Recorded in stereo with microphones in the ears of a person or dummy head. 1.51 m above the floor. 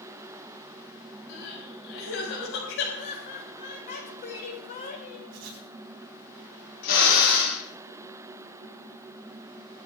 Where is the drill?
55° left (ahead or behind), 6.5 m.